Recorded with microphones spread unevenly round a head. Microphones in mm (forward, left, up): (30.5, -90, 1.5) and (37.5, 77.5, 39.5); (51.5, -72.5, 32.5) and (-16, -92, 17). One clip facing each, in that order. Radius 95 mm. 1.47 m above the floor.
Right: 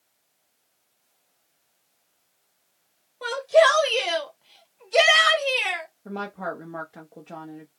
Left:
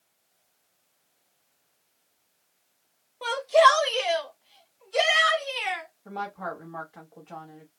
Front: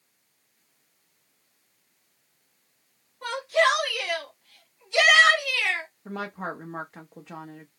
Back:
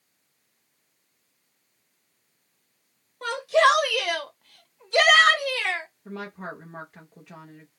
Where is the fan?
I don't hear a fan.